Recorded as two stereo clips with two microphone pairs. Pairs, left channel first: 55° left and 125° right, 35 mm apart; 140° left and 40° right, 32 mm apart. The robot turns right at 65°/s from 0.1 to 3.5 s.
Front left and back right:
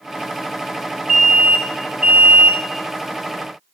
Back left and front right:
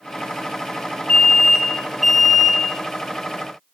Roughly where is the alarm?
Behind.